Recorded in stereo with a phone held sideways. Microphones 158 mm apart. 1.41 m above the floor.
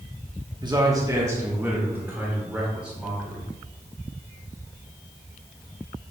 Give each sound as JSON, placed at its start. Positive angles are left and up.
{"t": 0.6, "sound": "a man speaking", "side_deg": -30, "distance_m": 1.0}